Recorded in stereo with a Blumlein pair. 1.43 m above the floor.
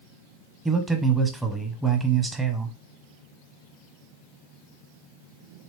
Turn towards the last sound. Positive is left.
turn(degrees=-10)